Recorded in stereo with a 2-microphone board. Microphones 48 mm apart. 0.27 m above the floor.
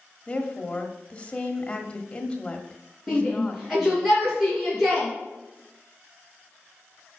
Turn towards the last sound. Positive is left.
turn(degrees=5)  # may be behind; listen again after turning